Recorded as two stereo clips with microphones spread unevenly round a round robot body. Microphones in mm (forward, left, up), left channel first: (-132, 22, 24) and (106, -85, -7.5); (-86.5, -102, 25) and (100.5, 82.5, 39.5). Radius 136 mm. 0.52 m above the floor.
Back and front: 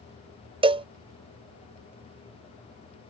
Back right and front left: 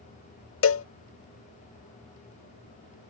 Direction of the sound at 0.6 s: 95° right.